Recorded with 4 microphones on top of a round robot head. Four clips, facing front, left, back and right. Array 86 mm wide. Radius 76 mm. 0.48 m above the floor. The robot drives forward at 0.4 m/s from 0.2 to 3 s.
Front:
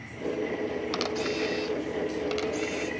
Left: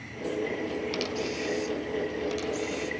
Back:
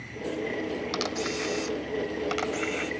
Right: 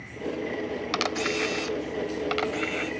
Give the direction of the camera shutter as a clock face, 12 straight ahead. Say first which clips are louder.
Right 4 dB, front 1 dB; 3 o'clock.